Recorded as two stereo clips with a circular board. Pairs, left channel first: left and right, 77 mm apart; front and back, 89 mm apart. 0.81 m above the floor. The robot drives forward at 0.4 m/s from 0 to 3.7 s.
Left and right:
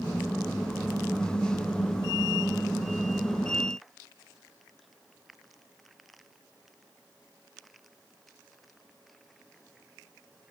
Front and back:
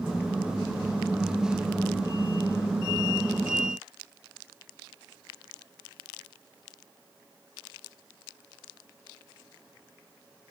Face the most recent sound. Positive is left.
No sound to turn to.